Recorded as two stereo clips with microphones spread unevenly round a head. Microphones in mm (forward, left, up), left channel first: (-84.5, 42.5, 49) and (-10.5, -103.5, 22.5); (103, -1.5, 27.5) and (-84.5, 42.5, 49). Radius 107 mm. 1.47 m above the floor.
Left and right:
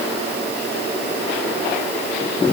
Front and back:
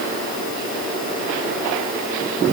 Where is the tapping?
No tapping in this recording.